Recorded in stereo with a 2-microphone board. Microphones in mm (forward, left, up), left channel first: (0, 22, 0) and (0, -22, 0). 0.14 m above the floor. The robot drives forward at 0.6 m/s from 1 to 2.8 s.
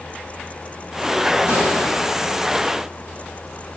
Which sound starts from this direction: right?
A gunshot, at 1.5 s.